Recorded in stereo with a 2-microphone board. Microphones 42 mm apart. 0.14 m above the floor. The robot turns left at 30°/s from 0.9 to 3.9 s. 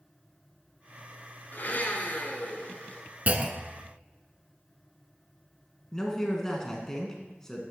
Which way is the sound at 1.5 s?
90° left.